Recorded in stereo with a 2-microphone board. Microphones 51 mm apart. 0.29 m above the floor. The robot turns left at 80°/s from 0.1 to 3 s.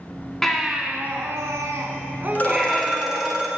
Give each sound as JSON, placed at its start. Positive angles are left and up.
{"t": 0.4, "sound": "a baby crying", "azimuth_deg": 10, "distance_m": 1.5}
{"t": 2.4, "sound": "a phone ringing", "azimuth_deg": 40, "distance_m": 1.7}